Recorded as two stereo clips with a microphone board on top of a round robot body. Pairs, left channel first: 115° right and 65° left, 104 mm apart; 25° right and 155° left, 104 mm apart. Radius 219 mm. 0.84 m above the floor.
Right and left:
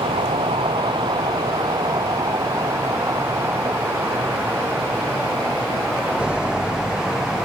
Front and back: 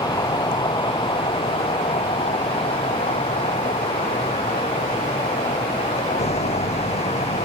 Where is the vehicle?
30° left; by 7.5 s 20° right.